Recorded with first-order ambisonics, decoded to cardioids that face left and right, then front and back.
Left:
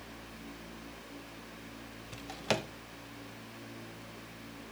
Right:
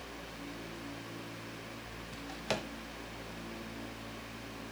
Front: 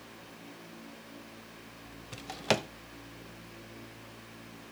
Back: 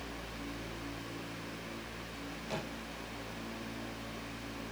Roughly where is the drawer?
Ahead.